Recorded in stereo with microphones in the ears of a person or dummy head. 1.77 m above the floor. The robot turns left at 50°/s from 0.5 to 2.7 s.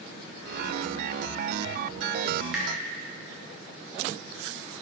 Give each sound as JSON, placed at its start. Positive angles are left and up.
{"t": 2.4, "sound": "dripping", "side_deg": -15, "distance_m": 1.9}